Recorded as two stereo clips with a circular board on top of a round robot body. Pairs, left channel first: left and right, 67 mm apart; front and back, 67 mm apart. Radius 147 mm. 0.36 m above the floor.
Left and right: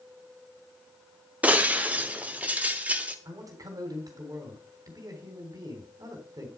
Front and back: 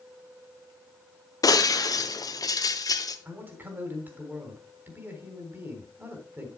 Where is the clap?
I don't hear a clap.